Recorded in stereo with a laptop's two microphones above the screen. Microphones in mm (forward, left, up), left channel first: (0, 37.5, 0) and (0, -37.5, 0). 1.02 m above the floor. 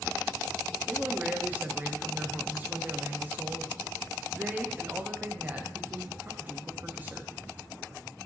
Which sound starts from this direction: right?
A man speaking, at 0.9 s.